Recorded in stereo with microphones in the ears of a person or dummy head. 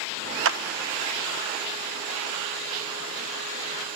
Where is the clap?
65° right (ahead or behind).